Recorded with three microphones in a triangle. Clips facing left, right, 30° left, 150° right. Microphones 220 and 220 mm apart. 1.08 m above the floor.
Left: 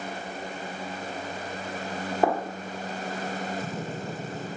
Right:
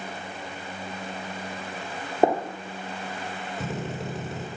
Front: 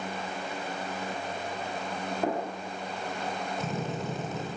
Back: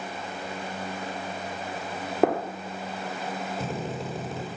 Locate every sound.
2.2 s a gunshot: 155° right, 1.7 m
3.6 s a drill: 95° right, 6 m